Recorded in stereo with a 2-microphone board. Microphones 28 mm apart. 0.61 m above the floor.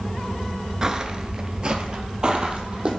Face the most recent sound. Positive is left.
turn(degrees=-25)  # may be behind; listen again after turning